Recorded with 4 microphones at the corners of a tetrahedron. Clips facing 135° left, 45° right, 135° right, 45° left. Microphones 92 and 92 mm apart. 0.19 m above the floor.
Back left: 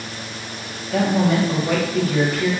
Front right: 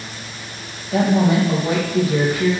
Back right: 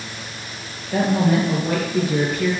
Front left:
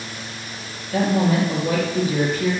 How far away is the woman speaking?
About 3 m.